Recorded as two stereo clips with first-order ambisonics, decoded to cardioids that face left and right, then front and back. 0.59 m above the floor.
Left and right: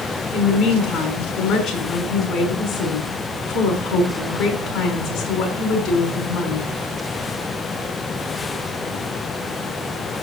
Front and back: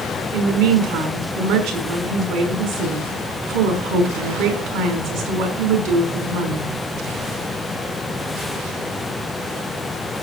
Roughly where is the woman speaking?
Behind.